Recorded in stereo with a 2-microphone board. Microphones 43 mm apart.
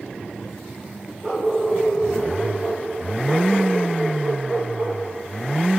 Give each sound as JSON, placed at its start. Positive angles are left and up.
{"t": 1.2, "sound": "a dog barking", "side_deg": -15, "distance_m": 8.5}